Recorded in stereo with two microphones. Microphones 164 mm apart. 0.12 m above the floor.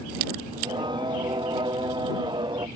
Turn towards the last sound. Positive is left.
turn(degrees=-30)  # may be behind; listen again after turning